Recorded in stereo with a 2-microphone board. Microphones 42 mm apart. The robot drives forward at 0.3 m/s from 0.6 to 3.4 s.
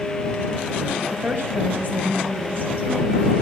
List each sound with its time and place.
1.1 s a woman speaking: 50° right (ahead or behind), 3 m; by 3.3 s 45° right (ahead or behind), 3.5 m